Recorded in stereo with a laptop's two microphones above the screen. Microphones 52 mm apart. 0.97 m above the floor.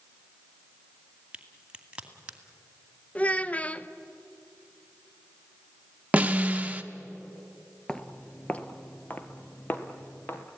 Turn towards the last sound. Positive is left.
turn(degrees=40)  # may be behind; listen again after turning